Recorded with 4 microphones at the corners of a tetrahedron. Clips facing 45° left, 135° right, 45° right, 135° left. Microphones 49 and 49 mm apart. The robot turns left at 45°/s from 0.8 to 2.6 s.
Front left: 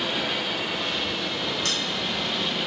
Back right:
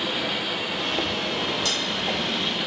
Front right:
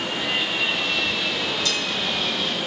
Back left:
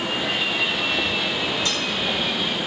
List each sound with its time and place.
1.6 s a dropped coin: 80° left, 0.9 m; by 1.8 s 75° left, 0.9 m